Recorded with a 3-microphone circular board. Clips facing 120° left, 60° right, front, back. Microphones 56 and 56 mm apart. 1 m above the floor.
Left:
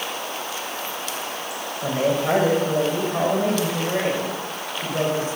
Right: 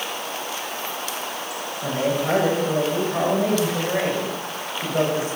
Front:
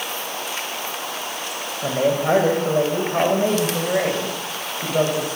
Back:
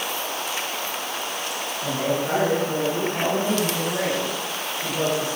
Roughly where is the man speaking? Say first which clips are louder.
Left 2 dB, front 6 dB; ahead left.